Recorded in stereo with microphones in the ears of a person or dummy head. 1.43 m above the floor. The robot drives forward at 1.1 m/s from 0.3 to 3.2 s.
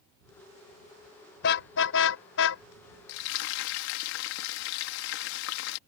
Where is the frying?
80° left.